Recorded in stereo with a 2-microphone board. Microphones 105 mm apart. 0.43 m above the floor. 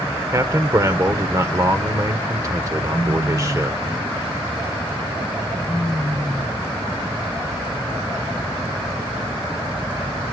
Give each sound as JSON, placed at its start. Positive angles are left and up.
{"t": 0.3, "sound": "a man speaking", "side_deg": -30, "distance_m": 1.3}